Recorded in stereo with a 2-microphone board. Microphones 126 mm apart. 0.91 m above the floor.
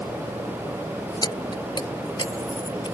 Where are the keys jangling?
35° left (ahead or behind).